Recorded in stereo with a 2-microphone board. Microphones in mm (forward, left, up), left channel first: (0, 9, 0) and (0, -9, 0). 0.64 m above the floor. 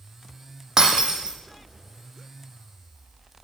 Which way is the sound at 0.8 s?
40° right (ahead or behind).